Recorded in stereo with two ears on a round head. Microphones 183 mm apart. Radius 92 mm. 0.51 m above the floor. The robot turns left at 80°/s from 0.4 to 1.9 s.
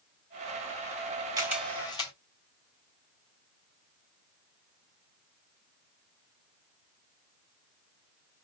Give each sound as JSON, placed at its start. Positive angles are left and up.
{"t": 1.4, "sound": "a camera shutter", "side_deg": -20, "distance_m": 2.5}